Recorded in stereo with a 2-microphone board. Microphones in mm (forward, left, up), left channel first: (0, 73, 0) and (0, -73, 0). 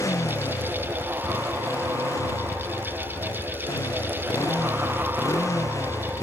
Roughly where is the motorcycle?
Left.